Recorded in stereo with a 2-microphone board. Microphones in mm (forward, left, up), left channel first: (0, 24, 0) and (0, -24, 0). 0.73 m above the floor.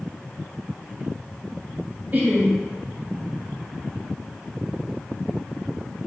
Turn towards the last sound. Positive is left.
turn(degrees=-35)  # may be behind; listen again after turning